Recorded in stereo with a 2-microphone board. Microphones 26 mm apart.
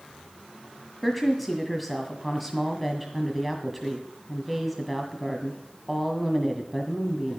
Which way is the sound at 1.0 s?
Centre (ahead or behind).